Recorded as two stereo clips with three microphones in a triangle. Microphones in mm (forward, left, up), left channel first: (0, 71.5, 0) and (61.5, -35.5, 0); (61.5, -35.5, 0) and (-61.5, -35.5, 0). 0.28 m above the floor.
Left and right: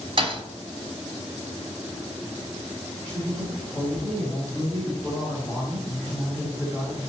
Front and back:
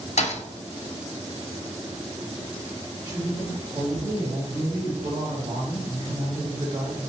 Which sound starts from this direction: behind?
A woman speaking, at 3.0 s.